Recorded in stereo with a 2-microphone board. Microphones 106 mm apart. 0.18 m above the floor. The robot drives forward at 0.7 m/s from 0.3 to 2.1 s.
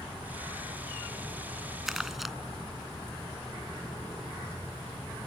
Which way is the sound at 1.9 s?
5° right (ahead or behind).